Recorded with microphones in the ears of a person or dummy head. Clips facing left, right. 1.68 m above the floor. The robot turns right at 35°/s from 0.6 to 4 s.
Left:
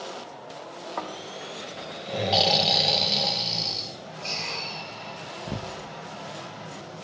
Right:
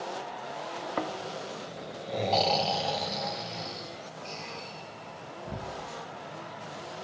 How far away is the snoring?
About 0.9 m.